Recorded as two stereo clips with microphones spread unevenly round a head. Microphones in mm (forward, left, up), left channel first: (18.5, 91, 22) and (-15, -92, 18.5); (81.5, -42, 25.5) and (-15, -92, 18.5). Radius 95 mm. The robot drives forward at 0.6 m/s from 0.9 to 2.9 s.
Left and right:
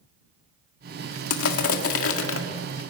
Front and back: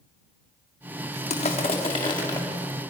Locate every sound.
1.3 s crushing: 80° left, 2.0 m; by 2.4 s 100° left, 2.0 m